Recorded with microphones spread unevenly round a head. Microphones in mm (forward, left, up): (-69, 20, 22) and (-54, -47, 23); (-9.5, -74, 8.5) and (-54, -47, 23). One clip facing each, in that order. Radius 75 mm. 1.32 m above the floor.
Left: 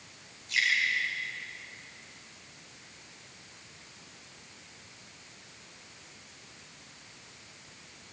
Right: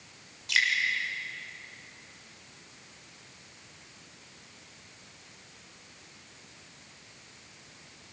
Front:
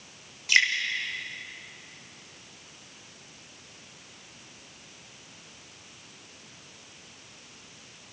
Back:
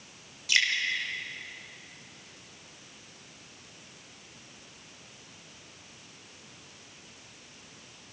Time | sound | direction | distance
0.5 | dripping | 80° right | 6.5 m